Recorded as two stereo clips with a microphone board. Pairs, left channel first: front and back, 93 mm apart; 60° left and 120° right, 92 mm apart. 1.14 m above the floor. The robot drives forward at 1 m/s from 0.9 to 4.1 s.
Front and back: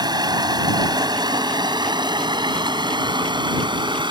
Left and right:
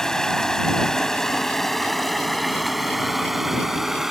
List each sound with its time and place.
0.0 s running water: 145° left; by 4.1 s 155° left